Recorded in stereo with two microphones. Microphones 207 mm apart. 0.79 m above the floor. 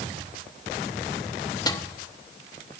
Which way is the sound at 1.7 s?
20° left (ahead or behind).